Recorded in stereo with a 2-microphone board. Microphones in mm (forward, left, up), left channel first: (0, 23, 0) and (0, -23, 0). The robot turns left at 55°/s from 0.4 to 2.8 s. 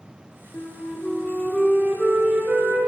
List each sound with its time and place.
0.5 s a flute: 70° left, 3 m; by 2.8 s 55° right, 3 m